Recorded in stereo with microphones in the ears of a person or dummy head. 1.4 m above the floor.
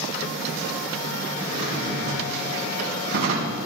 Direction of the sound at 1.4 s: 80° right.